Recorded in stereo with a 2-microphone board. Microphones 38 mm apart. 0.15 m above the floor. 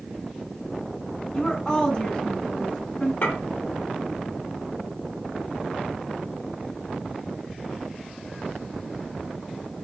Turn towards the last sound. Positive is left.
turn(degrees=60)  # may be behind; listen again after turning